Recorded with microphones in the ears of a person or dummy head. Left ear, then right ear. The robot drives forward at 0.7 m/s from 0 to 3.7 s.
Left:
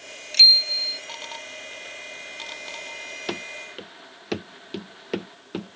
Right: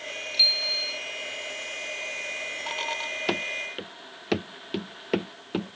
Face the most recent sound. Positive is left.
turn(degrees=-25)  # may be behind; listen again after turning